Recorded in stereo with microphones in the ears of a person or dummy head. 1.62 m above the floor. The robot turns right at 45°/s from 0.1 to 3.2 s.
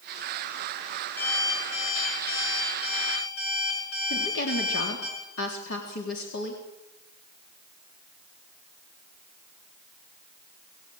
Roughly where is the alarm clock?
Ahead.